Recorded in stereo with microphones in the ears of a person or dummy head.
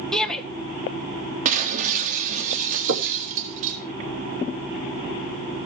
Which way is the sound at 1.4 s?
40° right (ahead or behind).